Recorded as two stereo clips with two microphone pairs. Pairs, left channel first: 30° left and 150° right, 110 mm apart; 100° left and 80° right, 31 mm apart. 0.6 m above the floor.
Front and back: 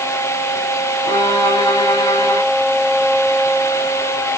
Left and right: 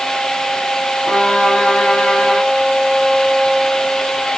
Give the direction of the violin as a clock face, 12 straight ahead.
10 o'clock.